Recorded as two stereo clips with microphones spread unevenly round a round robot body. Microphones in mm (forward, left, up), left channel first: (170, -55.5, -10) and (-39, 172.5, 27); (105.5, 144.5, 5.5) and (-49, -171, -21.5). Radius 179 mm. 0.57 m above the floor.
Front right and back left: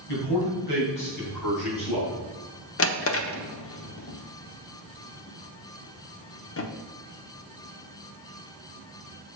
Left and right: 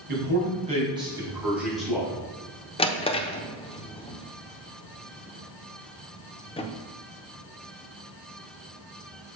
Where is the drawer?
10° right, 0.9 m.